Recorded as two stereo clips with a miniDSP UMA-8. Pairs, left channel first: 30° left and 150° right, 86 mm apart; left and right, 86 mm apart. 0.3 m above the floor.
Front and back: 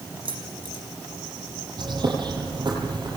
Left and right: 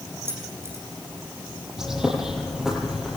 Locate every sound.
0.2 s keys jangling: 150° right, 8 m
1.8 s a bird: 175° right, 9.5 m